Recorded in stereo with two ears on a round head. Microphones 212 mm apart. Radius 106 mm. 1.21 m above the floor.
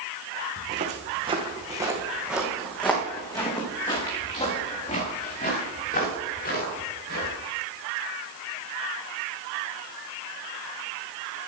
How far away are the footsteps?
About 3 m.